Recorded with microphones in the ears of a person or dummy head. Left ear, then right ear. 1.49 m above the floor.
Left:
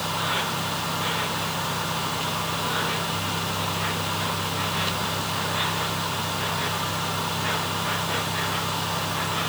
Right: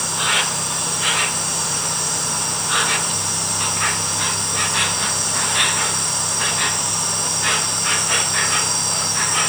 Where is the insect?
45° right (ahead or behind).